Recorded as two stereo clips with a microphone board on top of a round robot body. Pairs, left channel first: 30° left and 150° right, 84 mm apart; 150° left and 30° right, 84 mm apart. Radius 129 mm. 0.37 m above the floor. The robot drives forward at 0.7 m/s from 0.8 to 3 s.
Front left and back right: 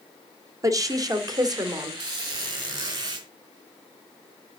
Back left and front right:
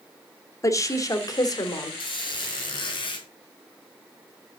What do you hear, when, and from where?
0.6 s a woman speaking: 175° right, 1.8 m
2.0 s a squeak: 175° left, 3.5 m